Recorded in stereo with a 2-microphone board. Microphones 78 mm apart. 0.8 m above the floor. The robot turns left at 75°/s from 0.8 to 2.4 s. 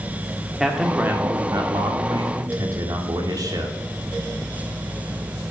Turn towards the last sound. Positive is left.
turn(degrees=-125)